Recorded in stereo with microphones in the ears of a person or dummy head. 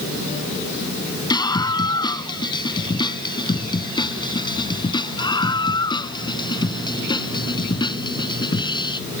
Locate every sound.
1.3 s a scream: 25° left (ahead or behind)